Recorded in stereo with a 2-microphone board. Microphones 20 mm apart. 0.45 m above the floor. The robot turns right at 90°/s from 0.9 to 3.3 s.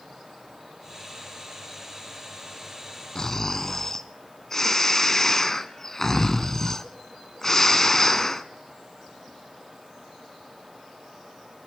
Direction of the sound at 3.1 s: 35° left (ahead or behind).